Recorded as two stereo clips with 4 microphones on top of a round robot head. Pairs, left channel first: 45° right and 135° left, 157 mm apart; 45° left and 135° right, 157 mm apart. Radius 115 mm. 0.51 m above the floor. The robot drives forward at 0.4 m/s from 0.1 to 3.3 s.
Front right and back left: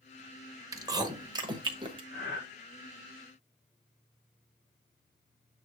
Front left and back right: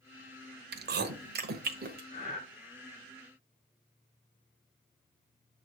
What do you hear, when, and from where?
0.7 s chewing: 155° right, 1.0 m; by 2.0 s 165° right, 1.5 m
2.1 s breathing: 10° right, 4.5 m